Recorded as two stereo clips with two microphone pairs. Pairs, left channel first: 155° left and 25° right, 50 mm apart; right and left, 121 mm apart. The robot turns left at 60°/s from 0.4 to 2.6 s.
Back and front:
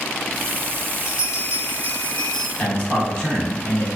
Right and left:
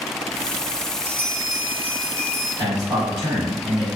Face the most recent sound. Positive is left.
turn(degrees=125)